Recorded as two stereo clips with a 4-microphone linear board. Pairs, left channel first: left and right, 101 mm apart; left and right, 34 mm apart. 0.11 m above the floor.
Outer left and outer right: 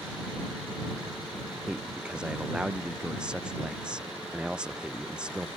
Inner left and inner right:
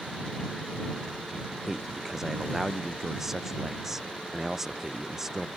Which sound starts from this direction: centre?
A man speaking, at 1.7 s.